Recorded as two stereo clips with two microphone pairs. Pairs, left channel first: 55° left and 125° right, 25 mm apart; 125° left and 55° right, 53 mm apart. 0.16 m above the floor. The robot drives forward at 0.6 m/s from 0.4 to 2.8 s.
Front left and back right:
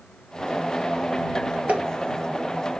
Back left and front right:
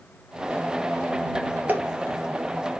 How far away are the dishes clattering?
About 2.5 m.